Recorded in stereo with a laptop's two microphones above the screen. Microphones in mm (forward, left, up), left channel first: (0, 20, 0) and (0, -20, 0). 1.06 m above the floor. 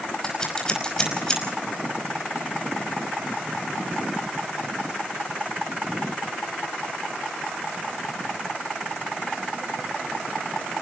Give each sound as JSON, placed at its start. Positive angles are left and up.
{"t": 0.2, "sound": "scissors", "side_deg": 20, "distance_m": 5.5}